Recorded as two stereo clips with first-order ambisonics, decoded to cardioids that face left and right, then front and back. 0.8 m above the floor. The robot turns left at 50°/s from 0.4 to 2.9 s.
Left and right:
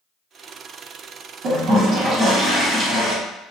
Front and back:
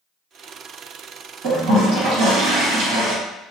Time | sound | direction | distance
1.4 | a toilet flushing | 130° right | 1.4 m